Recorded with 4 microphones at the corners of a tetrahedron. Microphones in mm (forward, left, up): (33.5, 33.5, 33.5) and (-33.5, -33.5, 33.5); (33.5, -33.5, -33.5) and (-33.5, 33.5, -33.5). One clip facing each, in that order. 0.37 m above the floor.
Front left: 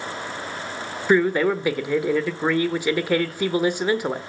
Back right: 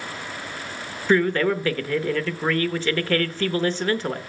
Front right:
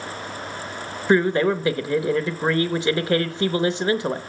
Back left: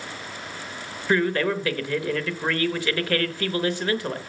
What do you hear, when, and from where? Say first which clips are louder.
1.1 s a man speaking: front left 1 dB, front right 4 dB; 15° right, 0.8 m